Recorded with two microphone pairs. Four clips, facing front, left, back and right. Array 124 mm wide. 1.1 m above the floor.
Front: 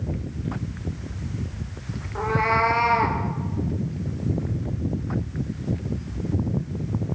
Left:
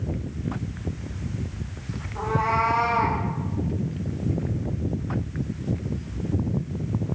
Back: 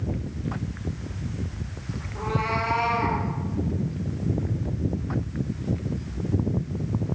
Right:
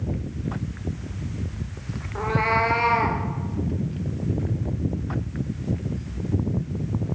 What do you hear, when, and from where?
2.1 s a cat meowing: 40° right, 1.7 m